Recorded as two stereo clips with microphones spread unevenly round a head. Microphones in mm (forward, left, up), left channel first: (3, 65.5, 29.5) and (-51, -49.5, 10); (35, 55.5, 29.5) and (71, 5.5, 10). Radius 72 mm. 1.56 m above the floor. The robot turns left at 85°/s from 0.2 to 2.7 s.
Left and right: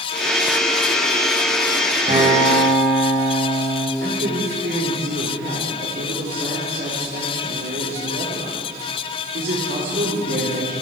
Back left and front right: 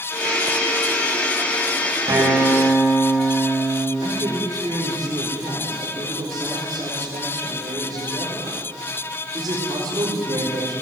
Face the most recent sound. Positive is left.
turn(degrees=-90)